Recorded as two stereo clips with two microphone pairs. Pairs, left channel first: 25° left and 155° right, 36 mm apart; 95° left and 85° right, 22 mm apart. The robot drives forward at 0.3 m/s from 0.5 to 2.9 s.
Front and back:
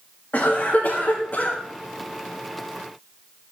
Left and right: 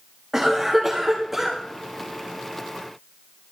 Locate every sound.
0.3 s a cough: 10° right, 1.8 m